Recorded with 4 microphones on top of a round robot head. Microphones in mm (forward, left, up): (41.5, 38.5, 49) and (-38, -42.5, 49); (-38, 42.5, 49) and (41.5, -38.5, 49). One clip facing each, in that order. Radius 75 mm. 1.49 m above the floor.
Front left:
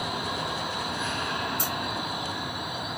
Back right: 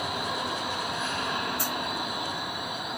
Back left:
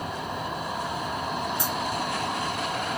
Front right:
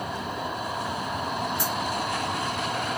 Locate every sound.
1.6 s a dropped coin: 85° left, 0.7 m